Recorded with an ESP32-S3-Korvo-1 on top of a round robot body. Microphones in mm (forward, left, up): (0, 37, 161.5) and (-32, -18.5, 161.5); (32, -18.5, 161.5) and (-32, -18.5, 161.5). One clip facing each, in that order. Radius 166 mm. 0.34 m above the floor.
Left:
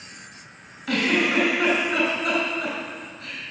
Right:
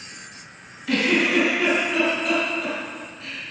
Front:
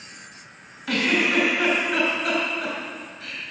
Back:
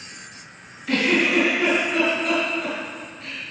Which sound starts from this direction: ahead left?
A giggle, at 0.9 s.